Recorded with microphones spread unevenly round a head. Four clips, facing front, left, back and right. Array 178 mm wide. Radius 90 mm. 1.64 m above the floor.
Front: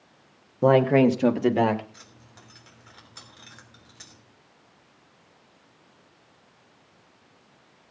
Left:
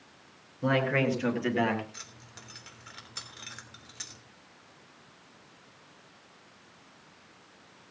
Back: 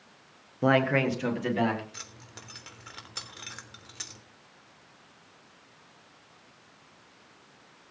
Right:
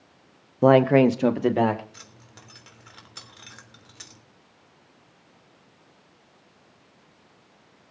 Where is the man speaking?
70° right, 1.1 m; by 1.8 s 40° right, 1.9 m.